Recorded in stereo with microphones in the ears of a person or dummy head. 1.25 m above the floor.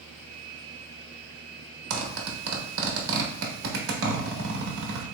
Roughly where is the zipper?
Right.